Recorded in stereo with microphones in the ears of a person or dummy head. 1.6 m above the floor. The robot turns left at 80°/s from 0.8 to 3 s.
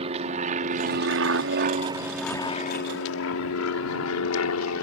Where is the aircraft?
40° right (ahead or behind); by 4.8 s 75° left (ahead or behind).